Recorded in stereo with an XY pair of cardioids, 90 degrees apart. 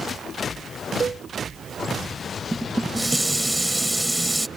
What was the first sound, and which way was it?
A cowbell, 40° right.